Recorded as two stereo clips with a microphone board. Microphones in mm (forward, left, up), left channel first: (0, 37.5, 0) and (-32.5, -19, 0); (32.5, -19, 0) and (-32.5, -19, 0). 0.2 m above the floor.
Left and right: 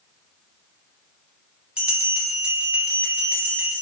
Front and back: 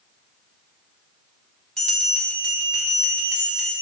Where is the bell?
70° right, 1.0 m.